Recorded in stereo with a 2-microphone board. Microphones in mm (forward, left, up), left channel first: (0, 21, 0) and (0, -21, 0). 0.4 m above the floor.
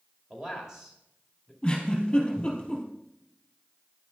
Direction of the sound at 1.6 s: 20° left (ahead or behind).